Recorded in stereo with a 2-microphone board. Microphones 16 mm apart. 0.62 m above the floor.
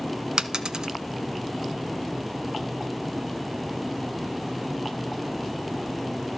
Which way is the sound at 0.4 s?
45° right (ahead or behind).